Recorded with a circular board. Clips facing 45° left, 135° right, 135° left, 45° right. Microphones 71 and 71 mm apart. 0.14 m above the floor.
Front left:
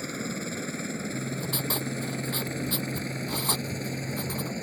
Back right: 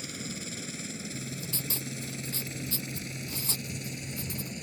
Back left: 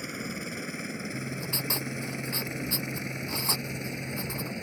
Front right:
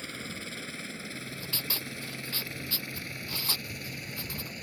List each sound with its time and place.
0.0 s a helicopter: 70° left; by 4.6 s 75° left
1.1 s writing: 70° left